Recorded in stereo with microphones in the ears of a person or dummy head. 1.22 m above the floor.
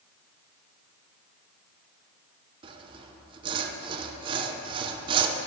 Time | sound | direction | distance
2.6 | sawing | 25° right (ahead or behind) | 0.7 m